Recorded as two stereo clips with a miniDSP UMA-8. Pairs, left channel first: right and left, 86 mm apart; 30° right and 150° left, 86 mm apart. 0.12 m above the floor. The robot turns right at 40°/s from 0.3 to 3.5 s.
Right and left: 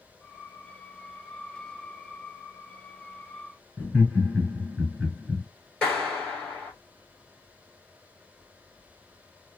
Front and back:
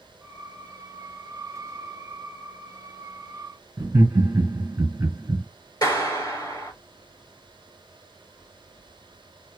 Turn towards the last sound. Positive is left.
turn(degrees=-15)